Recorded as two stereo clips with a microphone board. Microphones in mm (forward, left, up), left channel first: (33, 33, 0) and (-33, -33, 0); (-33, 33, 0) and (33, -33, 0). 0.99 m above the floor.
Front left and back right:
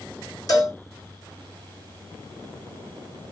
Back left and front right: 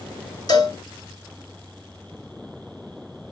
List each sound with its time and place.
0.5 s a cowbell: 95° left, 2.5 m